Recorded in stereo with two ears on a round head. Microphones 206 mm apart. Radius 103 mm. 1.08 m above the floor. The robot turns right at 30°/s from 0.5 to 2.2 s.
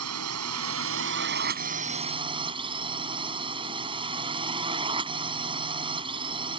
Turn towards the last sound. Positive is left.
turn(degrees=-25)